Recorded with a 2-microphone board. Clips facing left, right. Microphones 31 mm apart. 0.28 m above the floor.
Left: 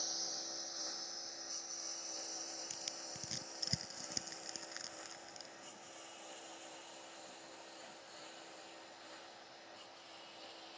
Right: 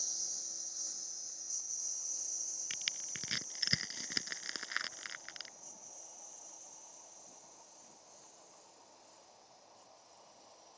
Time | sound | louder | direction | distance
0.0 | a lawn mower | left 2 dB | 40° left (ahead or behind) | ?
2.7 | crushing | right 6 dB | 55° right (ahead or behind) | ?